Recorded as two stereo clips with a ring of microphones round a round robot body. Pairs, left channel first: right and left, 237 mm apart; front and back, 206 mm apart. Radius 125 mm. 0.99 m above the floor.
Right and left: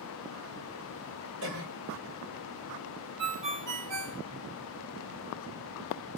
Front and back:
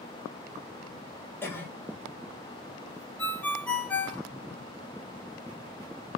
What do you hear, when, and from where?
1.4 s a cough: 80° left, 1.7 m
3.2 s a ringtone: 85° left, 1.0 m